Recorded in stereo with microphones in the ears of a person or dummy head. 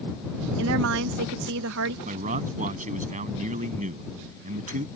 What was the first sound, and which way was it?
A woman speaking, 80° right.